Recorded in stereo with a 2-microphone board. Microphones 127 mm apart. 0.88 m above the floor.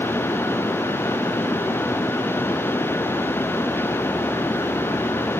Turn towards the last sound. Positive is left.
No sound to turn to.